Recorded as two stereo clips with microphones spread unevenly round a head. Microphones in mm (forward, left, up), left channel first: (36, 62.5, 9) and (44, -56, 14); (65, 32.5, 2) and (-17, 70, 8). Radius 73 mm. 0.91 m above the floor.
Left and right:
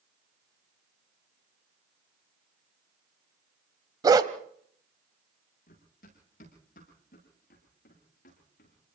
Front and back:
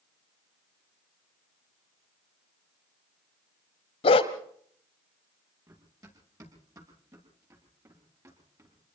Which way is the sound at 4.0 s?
35° right.